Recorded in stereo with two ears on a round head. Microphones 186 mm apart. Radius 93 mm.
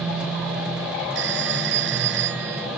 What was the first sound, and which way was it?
A phone ringing, 60° right (ahead or behind).